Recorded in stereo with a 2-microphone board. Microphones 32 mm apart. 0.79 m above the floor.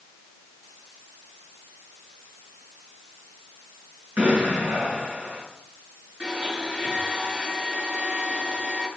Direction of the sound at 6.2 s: 45° right (ahead or behind).